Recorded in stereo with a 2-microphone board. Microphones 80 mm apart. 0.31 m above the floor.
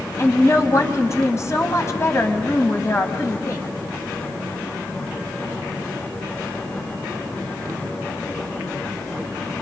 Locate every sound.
0.2 s a woman speaking: 40° left (ahead or behind), 2 m